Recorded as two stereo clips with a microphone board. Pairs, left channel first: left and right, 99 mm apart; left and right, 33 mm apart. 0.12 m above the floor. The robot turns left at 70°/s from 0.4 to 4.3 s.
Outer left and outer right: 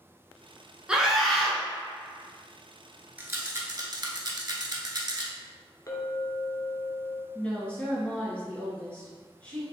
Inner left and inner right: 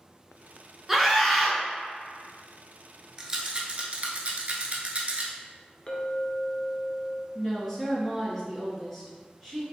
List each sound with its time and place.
0.9 s a scream: 10° right (ahead or behind), 1.1 m; by 1.6 s 10° left (ahead or behind), 1.1 m
3.2 s a rattle: 20° right (ahead or behind), 0.7 m; by 5.3 s 40° right (ahead or behind), 0.7 m
5.9 s a clink: 35° left (ahead or behind), 0.8 m
7.3 s a woman speaking: 15° left (ahead or behind), 1.7 m